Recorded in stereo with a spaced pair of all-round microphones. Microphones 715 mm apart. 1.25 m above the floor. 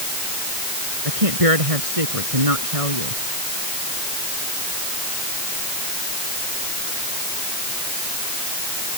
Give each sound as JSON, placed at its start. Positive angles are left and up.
{"t": 1.1, "sound": "a woman speaking", "side_deg": -50}